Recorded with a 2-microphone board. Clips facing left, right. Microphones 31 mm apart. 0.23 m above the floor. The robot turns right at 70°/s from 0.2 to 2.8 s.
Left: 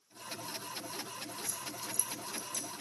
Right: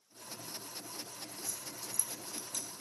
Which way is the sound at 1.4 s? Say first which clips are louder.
Left 4 dB; 10° left (ahead or behind).